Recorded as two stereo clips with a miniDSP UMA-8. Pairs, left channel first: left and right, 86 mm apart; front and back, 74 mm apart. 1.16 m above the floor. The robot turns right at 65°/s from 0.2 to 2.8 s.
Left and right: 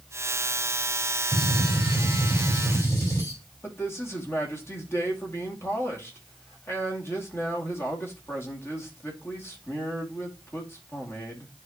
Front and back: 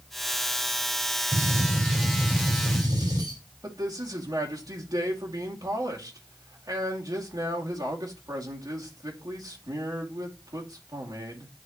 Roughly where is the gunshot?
Ahead left.